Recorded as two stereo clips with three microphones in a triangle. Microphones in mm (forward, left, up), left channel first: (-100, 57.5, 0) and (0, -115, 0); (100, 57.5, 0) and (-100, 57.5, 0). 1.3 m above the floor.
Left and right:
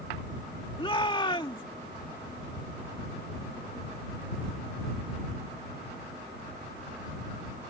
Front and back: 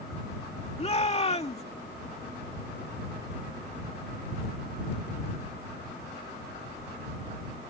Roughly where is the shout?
Ahead left.